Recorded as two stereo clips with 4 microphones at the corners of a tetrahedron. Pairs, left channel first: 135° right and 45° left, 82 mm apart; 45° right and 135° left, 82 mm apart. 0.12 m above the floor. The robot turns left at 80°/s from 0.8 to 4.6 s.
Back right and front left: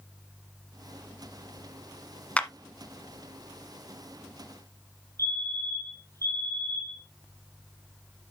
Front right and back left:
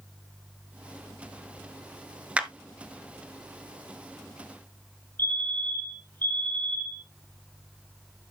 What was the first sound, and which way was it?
A clap, straight behind.